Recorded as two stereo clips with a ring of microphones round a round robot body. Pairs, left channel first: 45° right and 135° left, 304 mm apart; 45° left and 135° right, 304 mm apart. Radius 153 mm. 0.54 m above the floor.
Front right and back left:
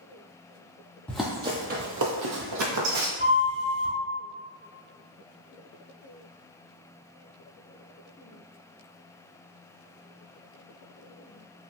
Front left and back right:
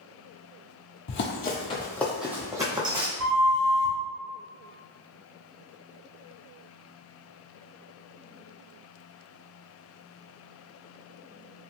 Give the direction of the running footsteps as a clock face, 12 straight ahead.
11 o'clock.